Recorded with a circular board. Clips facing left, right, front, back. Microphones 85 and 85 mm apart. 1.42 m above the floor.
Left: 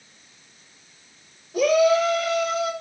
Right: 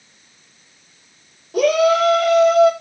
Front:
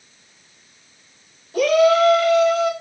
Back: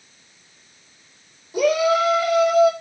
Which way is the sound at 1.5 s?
105° right.